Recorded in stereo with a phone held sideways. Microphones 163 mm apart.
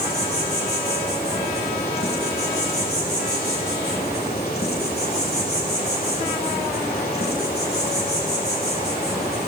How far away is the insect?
About 4.5 m.